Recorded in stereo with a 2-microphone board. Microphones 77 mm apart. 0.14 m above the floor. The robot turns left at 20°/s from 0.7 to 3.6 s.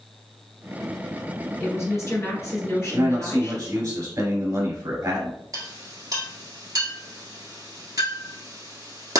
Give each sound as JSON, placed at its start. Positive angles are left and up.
{"t": 1.6, "sound": "a woman speaking", "azimuth_deg": 120, "distance_m": 1.5}
{"t": 2.9, "sound": "a man speaking", "side_deg": -40, "distance_m": 1.8}
{"t": 5.5, "sound": "a clink", "side_deg": -55, "distance_m": 1.3}